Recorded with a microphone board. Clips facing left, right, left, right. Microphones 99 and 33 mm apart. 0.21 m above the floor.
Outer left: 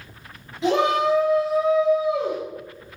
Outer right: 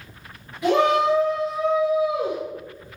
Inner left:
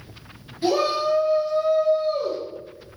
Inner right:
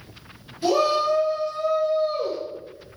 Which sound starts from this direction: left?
A shout, at 0.6 s.